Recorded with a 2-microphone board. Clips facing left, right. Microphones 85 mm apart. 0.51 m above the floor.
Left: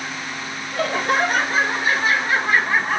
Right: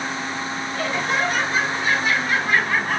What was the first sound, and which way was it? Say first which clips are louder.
Laughter: left 4 dB; 55° left (ahead or behind).